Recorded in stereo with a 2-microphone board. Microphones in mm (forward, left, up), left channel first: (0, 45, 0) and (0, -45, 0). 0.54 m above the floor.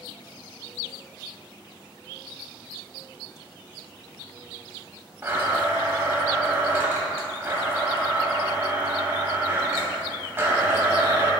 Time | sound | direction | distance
5.2 | a blender | 25° right (ahead or behind) | 1.7 m